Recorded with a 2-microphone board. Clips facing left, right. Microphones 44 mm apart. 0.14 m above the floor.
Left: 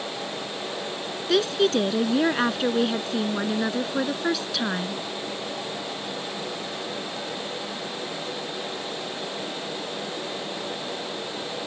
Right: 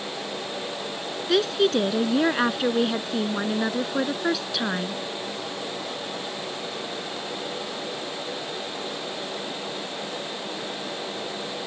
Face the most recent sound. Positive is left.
turn(degrees=-5)  # may be behind; listen again after turning